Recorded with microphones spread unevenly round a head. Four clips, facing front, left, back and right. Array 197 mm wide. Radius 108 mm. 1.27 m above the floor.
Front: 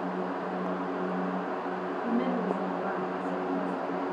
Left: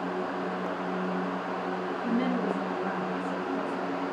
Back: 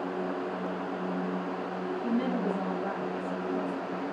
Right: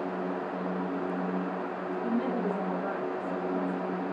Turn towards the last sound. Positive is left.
turn(degrees=-145)